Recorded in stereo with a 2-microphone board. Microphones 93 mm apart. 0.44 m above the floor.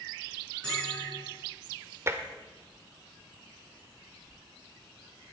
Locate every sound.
0.6 s a bell: 10° left (ahead or behind), 7.5 m
2.1 s tapping: 30° right (ahead or behind), 1.1 m